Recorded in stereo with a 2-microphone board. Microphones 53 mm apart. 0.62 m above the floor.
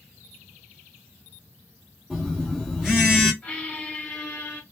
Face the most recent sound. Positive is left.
turn(degrees=20)  # may be behind; listen again after turning